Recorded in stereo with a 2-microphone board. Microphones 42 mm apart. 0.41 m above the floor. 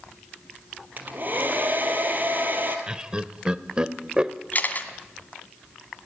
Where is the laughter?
20° right (ahead or behind), 1.1 m.